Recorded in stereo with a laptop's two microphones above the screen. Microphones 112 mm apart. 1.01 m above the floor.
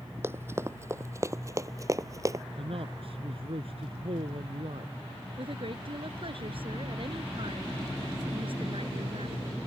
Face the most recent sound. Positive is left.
turn(degrees=-55)  # may be behind; listen again after turning